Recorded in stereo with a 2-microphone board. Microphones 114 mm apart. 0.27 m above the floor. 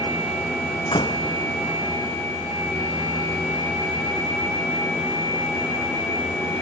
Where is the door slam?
45° left (ahead or behind).